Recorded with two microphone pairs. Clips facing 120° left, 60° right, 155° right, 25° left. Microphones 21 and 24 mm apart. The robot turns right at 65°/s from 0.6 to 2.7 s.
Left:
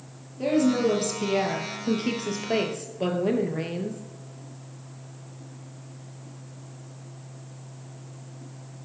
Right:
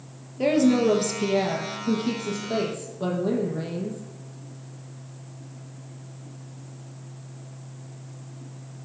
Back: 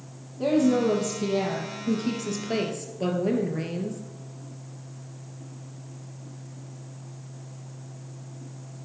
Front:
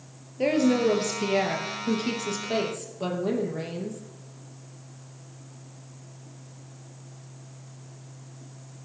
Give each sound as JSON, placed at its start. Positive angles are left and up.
{"t": 0.4, "sound": "a woman speaking", "azimuth_deg": -5, "distance_m": 3.0}